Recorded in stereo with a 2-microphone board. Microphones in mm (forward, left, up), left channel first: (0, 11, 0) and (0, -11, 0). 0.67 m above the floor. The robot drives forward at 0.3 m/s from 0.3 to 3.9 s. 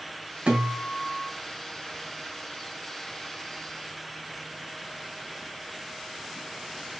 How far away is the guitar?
About 3 m.